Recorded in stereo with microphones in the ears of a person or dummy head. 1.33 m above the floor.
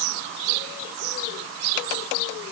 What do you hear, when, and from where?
Only background noise.